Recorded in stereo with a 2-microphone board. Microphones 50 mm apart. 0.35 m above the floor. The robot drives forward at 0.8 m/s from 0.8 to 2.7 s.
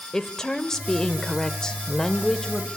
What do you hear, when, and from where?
0.1 s a woman speaking: 10° left (ahead or behind), 0.9 m